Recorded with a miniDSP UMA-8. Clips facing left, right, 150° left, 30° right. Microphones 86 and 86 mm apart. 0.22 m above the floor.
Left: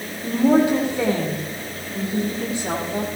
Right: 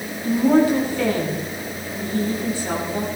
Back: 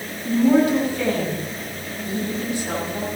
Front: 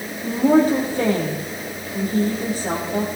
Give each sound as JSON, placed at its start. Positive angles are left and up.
{"t": 0.2, "sound": "a woman speaking", "azimuth_deg": 20, "distance_m": 8.0}